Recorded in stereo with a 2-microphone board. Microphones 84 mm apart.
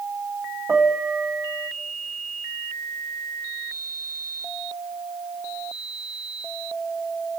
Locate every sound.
0.7 s a piano: 10° right (ahead or behind), 1.8 m